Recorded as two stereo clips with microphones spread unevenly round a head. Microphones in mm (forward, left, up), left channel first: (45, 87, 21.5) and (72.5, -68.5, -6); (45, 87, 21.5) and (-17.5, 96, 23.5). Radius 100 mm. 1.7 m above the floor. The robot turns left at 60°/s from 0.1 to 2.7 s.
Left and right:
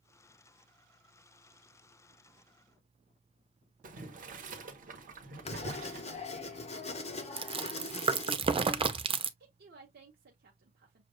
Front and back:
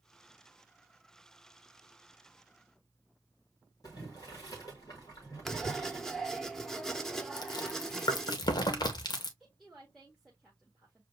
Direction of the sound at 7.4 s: 20° right.